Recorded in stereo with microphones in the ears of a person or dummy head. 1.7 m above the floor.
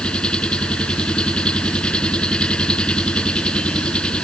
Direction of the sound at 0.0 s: 5° left (ahead or behind).